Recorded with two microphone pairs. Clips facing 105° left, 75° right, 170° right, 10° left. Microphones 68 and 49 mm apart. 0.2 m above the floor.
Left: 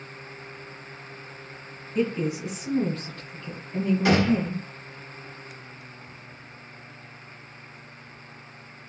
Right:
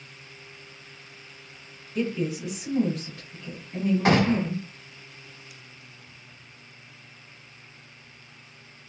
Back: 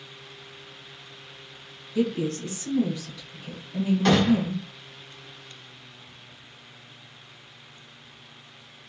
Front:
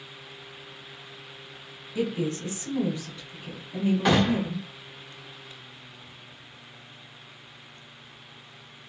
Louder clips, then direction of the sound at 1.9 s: Left 2 dB, back 2 dB; 55° left.